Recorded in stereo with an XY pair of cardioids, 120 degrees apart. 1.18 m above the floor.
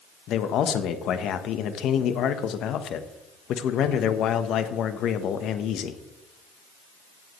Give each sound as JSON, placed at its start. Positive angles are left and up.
{"t": 0.3, "sound": "a man speaking", "azimuth_deg": 65, "distance_m": 1.1}